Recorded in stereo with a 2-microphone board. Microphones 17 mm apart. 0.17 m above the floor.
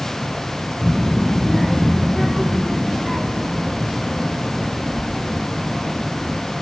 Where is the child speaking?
10° left (ahead or behind), 0.8 m; by 6.4 s 25° right (ahead or behind), 4.5 m.